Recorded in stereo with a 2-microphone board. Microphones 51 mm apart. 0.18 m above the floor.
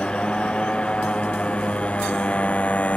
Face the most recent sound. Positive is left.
turn(degrees=25)  # may be behind; listen again after turning